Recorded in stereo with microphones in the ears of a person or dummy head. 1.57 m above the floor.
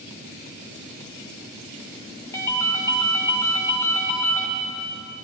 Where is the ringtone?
15° left (ahead or behind), 0.9 m.